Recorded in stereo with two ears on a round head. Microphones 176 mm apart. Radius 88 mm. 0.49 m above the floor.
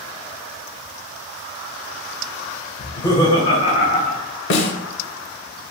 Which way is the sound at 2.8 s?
10° left (ahead or behind).